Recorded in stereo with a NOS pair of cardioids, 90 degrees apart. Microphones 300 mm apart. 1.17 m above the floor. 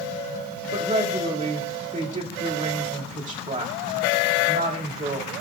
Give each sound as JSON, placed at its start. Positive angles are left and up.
{"t": 0.7, "sound": "a woman speaking", "azimuth_deg": -25, "distance_m": 2.5}